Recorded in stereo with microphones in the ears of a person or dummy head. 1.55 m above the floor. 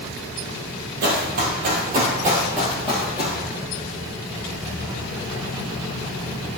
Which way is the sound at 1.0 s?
45° right (ahead or behind).